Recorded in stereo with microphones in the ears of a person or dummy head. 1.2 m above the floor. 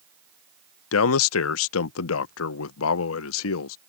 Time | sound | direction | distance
0.9 | a man speaking | 85° left | ?